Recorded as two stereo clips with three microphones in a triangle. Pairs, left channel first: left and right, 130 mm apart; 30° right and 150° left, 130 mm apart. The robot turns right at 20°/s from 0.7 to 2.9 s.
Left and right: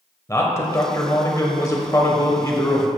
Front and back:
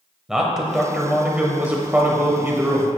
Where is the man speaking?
70° left, 1.0 m; by 2.9 s 110° left, 1.0 m.